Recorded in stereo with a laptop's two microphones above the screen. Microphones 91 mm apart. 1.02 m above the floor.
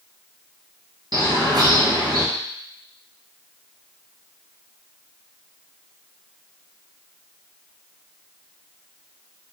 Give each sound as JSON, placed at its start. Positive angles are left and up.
{"t": 1.1, "sound": "a bird", "side_deg": -50, "distance_m": 1.1}